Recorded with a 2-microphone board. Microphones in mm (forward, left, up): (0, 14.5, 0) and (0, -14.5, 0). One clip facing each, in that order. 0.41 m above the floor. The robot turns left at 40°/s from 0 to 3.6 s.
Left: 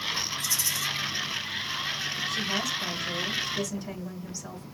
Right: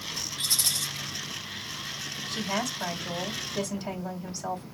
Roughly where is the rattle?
Right.